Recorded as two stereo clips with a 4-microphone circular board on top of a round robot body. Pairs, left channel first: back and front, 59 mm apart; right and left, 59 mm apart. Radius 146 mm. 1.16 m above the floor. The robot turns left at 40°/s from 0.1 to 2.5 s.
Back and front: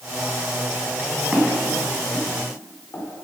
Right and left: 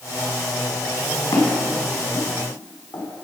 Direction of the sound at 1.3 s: 80° right.